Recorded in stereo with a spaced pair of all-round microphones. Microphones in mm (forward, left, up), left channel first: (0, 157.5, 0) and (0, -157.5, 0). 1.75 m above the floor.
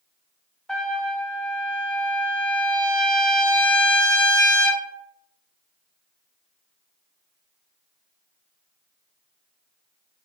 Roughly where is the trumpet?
Centre.